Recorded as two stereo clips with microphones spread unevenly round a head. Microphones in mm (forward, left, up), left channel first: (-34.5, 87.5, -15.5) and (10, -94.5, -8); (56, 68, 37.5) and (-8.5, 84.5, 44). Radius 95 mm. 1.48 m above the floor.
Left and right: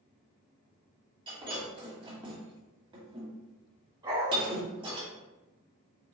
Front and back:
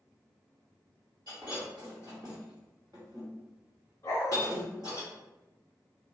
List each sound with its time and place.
1.3 s breaking glass: 135° right, 1.6 m
4.0 s a dog barking: 30° right, 1.4 m